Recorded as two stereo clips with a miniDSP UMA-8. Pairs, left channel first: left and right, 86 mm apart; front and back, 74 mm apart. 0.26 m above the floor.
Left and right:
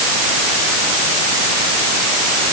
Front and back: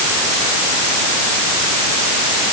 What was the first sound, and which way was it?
Only background noise.